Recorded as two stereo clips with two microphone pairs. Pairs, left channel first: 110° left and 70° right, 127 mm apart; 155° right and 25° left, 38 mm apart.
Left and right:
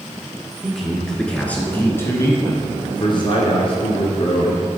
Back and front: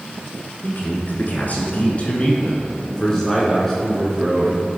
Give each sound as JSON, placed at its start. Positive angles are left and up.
{"t": 0.6, "sound": "a man speaking", "azimuth_deg": -160, "distance_m": 1.9}